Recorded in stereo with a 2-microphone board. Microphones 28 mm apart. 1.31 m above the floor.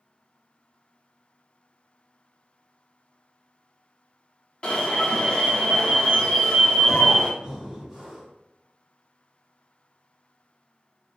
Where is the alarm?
40° left (ahead or behind), 0.6 m.